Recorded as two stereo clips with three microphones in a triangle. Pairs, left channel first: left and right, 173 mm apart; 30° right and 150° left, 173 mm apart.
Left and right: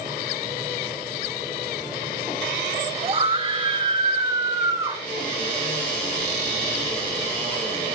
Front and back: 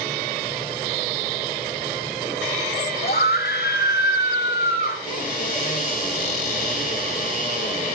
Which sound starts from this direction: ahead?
A cupboard door, at 5.0 s.